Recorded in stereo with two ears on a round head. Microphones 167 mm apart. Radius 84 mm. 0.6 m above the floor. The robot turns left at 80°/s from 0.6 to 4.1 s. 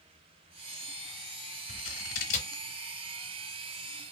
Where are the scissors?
75° left (ahead or behind), 0.7 m; by 2.6 s 15° left (ahead or behind), 0.7 m.